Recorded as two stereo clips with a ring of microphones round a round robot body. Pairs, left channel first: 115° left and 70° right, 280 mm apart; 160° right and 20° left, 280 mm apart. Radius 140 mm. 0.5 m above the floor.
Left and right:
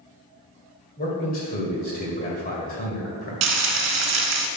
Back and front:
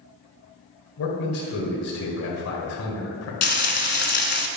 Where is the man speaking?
170° left, 1.8 m.